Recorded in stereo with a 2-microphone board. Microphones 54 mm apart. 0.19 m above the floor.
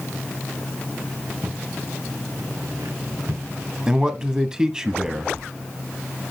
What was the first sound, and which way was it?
Footsteps, 75° right (ahead or behind).